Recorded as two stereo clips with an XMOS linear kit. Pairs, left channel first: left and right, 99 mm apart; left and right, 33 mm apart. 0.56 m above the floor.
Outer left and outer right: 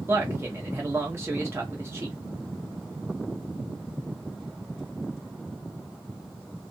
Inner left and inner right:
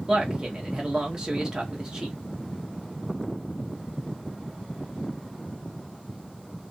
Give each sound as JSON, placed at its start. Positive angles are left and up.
{"t": 0.1, "sound": "a man speaking", "side_deg": -25, "distance_m": 0.6}